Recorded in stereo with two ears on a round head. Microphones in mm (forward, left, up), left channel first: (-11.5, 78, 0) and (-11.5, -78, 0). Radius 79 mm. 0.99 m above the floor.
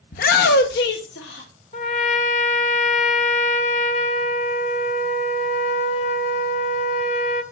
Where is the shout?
55° left (ahead or behind), 0.7 m; by 1.5 s 75° left (ahead or behind), 1.9 m.